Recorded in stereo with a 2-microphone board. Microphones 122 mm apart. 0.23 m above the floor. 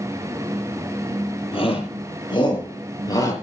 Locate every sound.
1.5 s a shout: 50° left (ahead or behind), 7 m; by 3.3 s 30° left (ahead or behind), 5.5 m